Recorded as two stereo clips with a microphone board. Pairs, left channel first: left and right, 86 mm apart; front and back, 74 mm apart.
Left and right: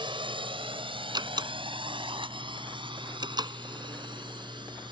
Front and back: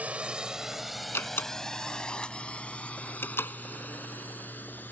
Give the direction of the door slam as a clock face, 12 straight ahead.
2 o'clock.